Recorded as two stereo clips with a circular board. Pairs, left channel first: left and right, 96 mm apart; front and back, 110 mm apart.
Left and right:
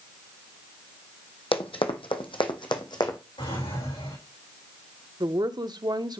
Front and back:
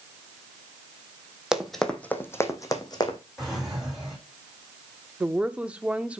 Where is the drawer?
90° left, 7.5 m.